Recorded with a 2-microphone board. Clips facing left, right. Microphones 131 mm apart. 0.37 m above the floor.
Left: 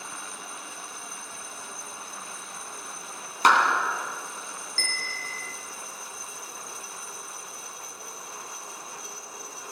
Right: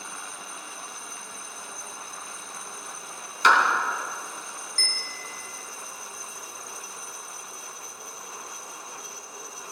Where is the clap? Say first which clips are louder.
Even; 45° left (ahead or behind), 3 m.